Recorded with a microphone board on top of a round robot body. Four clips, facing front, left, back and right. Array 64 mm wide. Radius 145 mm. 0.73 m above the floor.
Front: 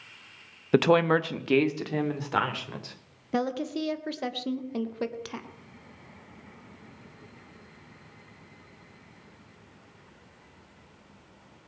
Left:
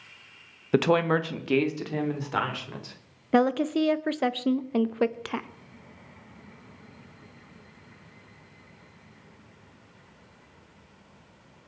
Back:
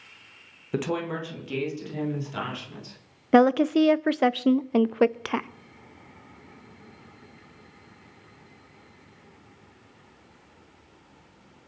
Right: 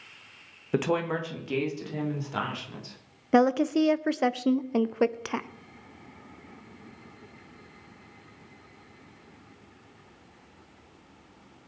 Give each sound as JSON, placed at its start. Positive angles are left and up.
{"t": 0.7, "sound": "a woman speaking", "azimuth_deg": 30, "distance_m": 1.2}
{"t": 3.3, "sound": "a woman speaking", "azimuth_deg": -175, "distance_m": 0.8}